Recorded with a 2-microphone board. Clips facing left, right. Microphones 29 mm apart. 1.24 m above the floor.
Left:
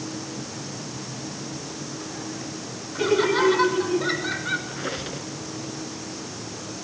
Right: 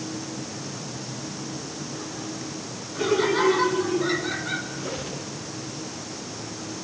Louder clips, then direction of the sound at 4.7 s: Left 1 dB; 40° left (ahead or behind).